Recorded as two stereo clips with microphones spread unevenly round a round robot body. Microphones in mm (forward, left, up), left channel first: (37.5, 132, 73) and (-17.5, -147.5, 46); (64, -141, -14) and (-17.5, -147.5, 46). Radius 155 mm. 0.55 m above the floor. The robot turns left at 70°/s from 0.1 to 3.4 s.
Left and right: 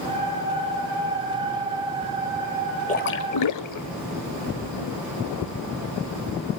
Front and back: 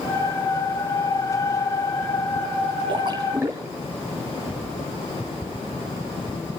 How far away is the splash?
About 0.7 m.